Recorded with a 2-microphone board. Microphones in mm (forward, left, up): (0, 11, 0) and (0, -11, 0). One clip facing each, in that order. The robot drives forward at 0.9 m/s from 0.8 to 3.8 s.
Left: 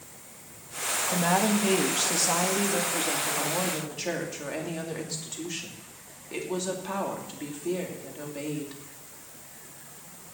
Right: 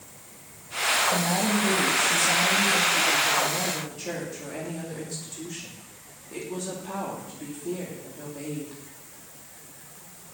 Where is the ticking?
I don't hear ticking.